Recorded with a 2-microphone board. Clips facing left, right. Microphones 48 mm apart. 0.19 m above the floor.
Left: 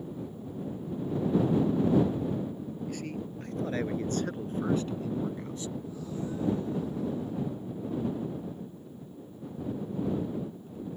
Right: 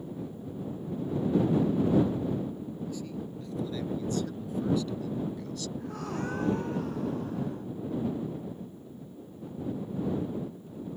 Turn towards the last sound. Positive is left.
turn(degrees=-65)  # may be behind; listen again after turning